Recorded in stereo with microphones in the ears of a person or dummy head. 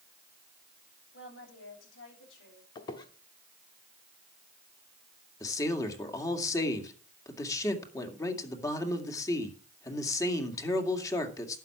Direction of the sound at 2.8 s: 25° left (ahead or behind).